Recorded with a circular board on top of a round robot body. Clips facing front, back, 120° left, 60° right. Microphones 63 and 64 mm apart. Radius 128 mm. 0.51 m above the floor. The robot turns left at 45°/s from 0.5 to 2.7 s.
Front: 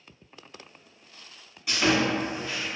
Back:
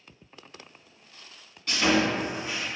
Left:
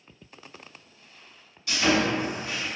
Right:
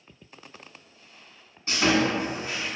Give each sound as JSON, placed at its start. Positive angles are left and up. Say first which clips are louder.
{"t": 1.7, "sound": "sawing", "louder": "even, right 1 dB", "azimuth_deg": -70, "distance_m": 1.5}